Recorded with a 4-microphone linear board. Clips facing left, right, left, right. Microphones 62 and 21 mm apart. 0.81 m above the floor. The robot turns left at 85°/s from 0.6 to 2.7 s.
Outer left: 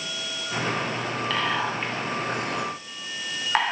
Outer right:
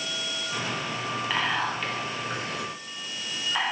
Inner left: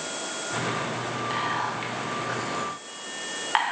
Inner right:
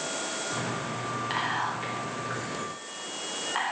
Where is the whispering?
15° right (ahead or behind), 2 m; by 3.7 s 60° left (ahead or behind), 2 m.